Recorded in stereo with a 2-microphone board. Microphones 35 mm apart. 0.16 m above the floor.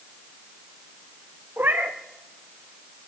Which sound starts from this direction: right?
A cat meowing, at 1.6 s.